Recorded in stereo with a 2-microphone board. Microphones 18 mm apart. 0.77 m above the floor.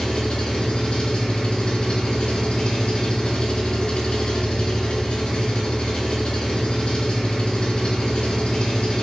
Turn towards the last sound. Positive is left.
turn(degrees=80)